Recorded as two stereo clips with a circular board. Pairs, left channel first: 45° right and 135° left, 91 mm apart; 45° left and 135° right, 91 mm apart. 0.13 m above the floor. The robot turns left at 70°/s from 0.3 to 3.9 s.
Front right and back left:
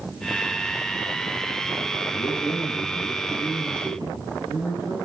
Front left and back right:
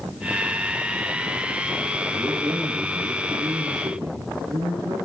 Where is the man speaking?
40° right, 5.5 m; by 5.0 s 165° right, 5.5 m.